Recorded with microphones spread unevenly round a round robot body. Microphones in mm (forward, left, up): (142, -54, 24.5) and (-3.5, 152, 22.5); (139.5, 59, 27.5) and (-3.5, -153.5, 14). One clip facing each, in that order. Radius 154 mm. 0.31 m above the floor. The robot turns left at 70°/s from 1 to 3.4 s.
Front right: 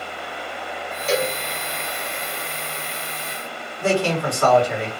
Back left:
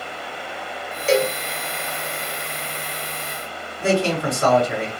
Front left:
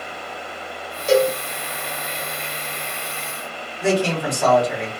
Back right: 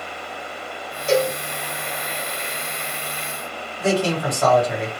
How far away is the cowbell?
About 1.3 m.